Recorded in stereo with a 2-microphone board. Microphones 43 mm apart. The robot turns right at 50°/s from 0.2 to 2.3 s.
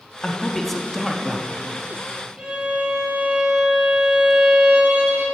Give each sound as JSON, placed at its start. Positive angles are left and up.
{"t": 0.2, "sound": "a man speaking", "side_deg": 10, "distance_m": 0.5}
{"t": 2.4, "sound": "a violin", "side_deg": -30, "distance_m": 2.0}